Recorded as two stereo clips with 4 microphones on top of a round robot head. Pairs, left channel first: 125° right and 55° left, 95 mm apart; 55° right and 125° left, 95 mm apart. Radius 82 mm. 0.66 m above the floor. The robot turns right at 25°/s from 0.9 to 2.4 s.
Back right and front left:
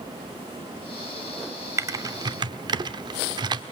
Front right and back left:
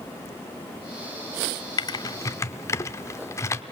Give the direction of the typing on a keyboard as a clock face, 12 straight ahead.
12 o'clock.